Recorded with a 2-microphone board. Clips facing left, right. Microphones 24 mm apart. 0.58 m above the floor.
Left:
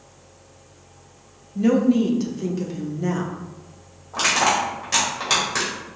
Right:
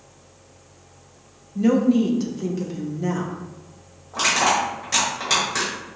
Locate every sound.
1.6 s a woman speaking: 5° left (ahead or behind), 0.6 m
4.1 s crushing: 15° left (ahead or behind), 1.8 m